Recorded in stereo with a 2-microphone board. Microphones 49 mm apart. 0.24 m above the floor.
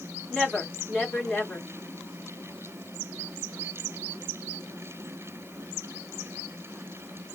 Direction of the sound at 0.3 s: 15° left (ahead or behind).